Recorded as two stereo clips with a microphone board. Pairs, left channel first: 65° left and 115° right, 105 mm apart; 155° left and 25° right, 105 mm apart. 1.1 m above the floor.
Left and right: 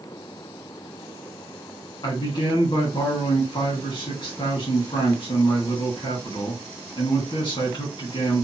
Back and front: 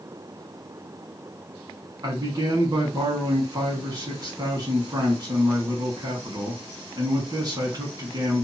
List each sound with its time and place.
2.0 s a man speaking: 30° left, 1.2 m